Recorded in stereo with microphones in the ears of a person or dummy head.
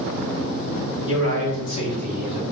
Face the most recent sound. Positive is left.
turn(degrees=-20)  # may be behind; listen again after turning